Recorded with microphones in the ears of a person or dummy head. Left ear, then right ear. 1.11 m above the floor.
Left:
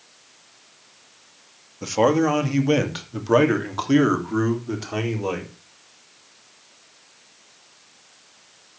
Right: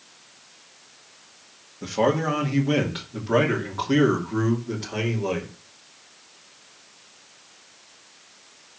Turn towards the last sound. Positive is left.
turn(degrees=50)  # may be behind; listen again after turning